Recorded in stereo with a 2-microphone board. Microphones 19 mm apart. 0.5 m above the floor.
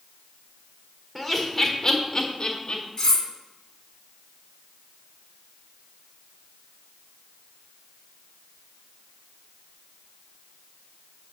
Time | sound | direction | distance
1.1 | laughter | 5° right (ahead or behind) | 1.7 m
3.0 | cutlery clinking | 25° left (ahead or behind) | 2.5 m